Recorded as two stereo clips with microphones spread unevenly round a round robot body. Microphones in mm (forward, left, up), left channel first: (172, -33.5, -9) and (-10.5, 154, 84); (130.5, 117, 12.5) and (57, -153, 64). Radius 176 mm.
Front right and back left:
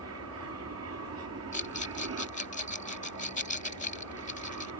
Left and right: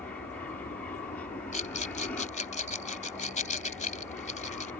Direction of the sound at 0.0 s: 140° left.